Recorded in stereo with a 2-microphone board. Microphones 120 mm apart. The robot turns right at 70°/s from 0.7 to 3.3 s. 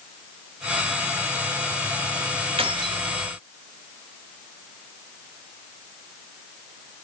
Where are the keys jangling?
60° right, 1.2 m; by 3.0 s 25° right, 1.2 m.